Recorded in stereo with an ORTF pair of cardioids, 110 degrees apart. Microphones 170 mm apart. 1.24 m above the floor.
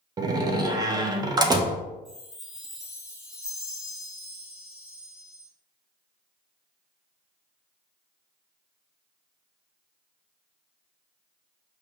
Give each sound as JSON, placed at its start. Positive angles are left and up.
{"t": 0.2, "sound": "a door slam", "azimuth_deg": -25, "distance_m": 0.6}
{"t": 2.0, "sound": "a chime", "azimuth_deg": 0, "distance_m": 1.8}